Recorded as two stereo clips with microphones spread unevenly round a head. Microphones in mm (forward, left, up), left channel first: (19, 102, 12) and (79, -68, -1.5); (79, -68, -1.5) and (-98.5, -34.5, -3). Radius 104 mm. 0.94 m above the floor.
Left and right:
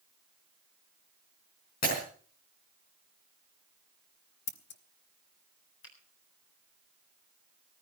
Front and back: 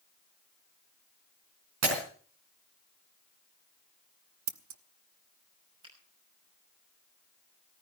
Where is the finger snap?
100° left, 6 m.